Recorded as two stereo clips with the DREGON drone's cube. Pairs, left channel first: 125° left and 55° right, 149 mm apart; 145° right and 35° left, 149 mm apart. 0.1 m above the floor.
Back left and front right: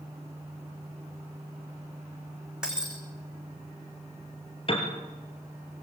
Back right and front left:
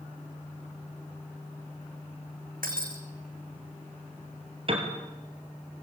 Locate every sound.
2.6 s breaking glass: 30° left, 4.5 m
4.7 s a piano: 80° left, 4 m